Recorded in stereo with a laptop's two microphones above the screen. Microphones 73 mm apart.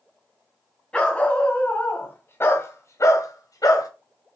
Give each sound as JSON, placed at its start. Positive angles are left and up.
{"t": 0.9, "sound": "a dog barking", "side_deg": 15, "distance_m": 2.5}